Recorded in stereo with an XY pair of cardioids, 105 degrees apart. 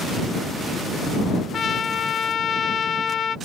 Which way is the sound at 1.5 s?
45° left.